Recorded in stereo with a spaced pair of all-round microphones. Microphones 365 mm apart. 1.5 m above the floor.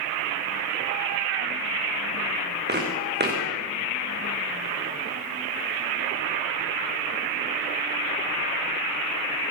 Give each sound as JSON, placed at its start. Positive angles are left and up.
{"t": 2.7, "sound": "footsteps", "side_deg": -25, "distance_m": 6.5}